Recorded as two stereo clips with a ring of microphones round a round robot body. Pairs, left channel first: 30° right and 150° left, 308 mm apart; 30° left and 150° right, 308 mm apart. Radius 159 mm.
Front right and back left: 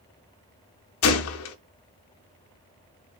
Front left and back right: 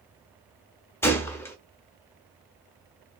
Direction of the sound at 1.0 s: 50° right.